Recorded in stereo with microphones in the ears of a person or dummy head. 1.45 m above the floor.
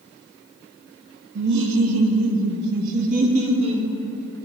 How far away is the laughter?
About 0.7 m.